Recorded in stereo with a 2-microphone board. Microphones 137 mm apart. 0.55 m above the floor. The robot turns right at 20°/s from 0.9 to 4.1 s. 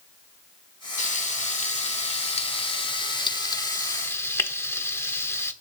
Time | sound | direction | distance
1.0 | frying | 60° left (ahead or behind) | 0.7 m